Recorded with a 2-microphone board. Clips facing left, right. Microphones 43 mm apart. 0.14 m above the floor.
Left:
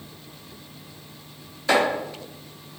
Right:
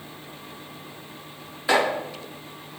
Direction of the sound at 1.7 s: 15° right (ahead or behind).